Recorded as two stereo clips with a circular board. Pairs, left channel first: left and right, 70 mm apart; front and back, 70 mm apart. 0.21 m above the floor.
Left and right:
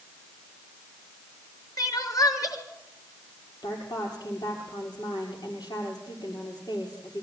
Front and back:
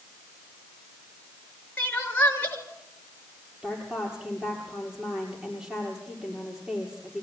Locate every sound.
1.8 s crying: 65° left, 3 m
3.6 s a woman speaking: 100° left, 6.5 m